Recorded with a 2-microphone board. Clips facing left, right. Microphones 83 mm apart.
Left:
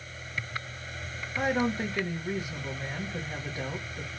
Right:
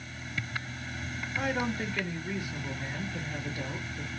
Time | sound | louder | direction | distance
1.4 | a woman speaking | left 4 dB | 20° left (ahead or behind) | 1.4 m